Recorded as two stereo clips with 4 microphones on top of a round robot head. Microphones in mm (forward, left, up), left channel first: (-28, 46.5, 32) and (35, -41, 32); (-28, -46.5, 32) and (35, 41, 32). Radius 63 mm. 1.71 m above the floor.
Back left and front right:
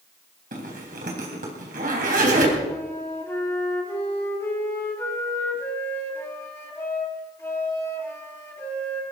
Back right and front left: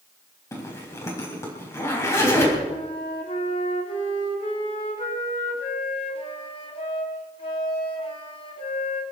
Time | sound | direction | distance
0.5 | a zipper | 60° right | 3.5 m
2.7 | a flute | 165° right | 2 m